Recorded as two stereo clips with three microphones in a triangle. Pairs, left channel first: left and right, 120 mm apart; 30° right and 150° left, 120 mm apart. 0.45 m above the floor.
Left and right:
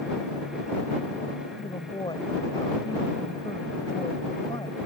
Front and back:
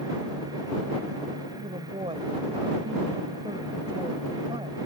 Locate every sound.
1.6 s a woman speaking: 125° left